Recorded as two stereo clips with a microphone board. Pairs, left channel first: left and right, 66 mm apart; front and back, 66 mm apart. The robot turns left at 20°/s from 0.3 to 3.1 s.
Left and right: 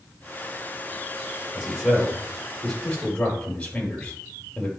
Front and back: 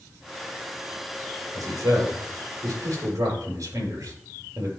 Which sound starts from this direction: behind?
A man speaking, at 1.6 s.